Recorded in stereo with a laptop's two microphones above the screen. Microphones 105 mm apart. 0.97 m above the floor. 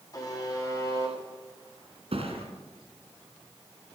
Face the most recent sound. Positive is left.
turn(degrees=-70)  # may be behind; listen again after turning